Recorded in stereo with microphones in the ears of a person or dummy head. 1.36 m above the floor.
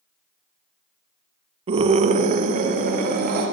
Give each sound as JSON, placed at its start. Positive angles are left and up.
{"t": 1.7, "sound": "a scream", "side_deg": -30, "distance_m": 0.6}